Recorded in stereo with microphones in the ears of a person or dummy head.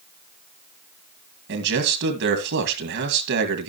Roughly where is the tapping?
No tapping in this recording.